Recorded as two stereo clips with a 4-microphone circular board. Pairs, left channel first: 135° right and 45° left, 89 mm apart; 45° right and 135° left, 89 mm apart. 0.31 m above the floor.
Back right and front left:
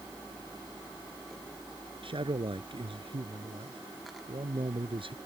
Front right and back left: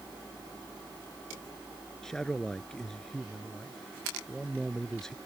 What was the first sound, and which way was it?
A man speaking, 40° left.